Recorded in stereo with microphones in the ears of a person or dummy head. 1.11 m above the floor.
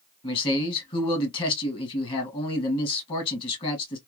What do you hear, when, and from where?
0.2 s a man speaking: 30° left (ahead or behind), 1.7 m